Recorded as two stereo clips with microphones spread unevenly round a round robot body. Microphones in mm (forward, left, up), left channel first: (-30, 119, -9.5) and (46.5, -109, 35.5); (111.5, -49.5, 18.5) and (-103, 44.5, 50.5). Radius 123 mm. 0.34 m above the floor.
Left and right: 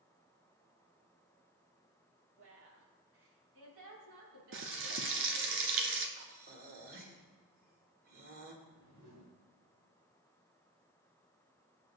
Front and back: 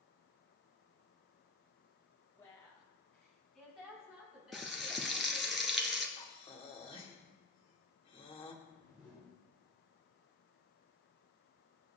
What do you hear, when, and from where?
2.4 s a woman speaking: 100° right, 3 m; by 5.5 s 120° right, 6.5 m
4.5 s frying: 115° right, 1.3 m
6.2 s breathing: 40° right, 1.6 m
8.6 s a whoosh: 95° right, 4.5 m